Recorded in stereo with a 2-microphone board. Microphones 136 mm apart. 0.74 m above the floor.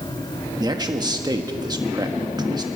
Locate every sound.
0.6 s a man speaking: 30° right (ahead or behind), 1.2 m